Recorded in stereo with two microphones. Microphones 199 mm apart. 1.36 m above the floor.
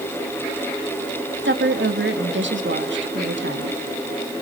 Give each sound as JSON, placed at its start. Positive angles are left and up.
{"t": 1.4, "sound": "a woman speaking", "side_deg": -70, "distance_m": 1.9}